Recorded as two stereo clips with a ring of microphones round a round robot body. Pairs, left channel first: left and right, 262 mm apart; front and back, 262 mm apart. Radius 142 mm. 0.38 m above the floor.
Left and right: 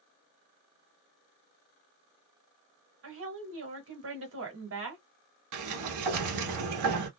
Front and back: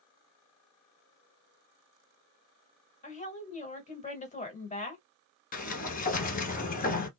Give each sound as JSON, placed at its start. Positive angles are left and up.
{"t": 3.0, "sound": "a woman speaking", "azimuth_deg": -55, "distance_m": 1.4}
{"t": 5.5, "sound": "a sliding door", "azimuth_deg": -60, "distance_m": 1.0}